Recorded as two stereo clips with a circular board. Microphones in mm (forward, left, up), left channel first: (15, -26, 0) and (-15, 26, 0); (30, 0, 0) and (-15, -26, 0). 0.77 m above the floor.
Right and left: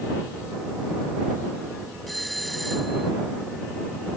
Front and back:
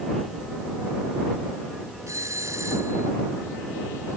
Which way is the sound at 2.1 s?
150° right.